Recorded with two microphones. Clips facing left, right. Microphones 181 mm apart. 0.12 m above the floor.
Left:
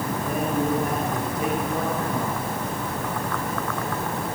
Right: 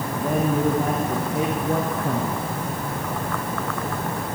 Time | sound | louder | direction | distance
0.1 | a man speaking | right 5 dB | 80° right | 8 m